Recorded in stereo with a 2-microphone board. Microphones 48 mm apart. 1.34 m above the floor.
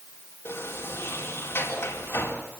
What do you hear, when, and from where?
0.5 s a sliding door: 60° left (ahead or behind), 4 m